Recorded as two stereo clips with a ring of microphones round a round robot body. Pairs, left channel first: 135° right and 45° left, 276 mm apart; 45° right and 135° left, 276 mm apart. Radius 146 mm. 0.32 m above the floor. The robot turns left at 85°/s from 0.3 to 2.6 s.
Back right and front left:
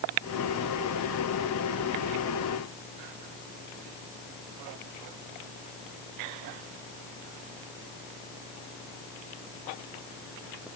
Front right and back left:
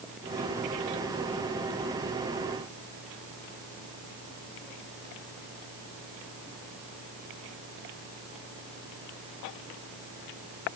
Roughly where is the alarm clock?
I don't hear an alarm clock.